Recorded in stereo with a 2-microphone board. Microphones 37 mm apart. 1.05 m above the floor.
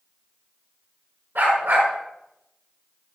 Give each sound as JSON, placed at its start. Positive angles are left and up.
{"t": 1.4, "sound": "a dog barking", "side_deg": -85, "distance_m": 4.5}